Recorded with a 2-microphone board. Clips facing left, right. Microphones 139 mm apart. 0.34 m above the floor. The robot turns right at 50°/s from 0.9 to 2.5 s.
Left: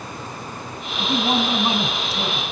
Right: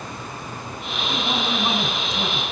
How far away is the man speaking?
About 3.5 m.